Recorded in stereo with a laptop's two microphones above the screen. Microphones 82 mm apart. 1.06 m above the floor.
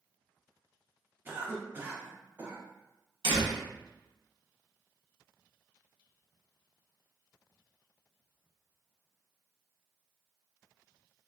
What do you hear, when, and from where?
1.2 s a cough: 25° right (ahead or behind), 0.8 m
3.2 s a door slam: 80° right, 1.3 m